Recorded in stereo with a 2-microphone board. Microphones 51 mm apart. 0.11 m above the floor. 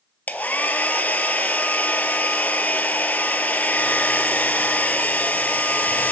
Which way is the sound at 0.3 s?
35° left (ahead or behind).